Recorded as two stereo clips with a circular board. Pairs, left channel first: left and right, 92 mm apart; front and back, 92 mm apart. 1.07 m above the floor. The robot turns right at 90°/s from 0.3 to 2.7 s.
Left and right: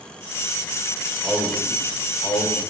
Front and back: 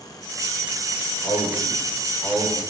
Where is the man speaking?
25° right, 3 m; by 2.6 s 100° left, 3 m.